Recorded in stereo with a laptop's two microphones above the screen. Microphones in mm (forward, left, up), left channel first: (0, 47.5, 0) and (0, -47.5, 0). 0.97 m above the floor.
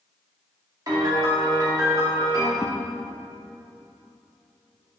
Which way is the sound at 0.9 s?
40° right (ahead or behind).